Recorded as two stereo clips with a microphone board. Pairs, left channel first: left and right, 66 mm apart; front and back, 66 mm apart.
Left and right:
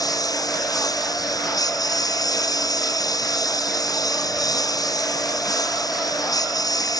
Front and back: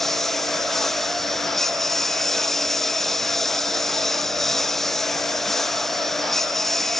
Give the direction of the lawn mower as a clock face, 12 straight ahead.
9 o'clock.